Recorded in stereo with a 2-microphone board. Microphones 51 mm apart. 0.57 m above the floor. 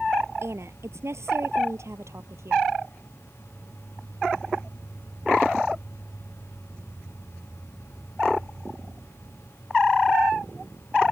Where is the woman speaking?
60° right (ahead or behind); by 2.6 s 70° right (ahead or behind).